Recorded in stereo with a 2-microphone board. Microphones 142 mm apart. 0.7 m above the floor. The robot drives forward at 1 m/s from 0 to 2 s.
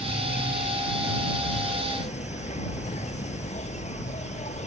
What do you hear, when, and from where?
0.0 s an insect: 60° left (ahead or behind); by 4.7 s 55° left (ahead or behind)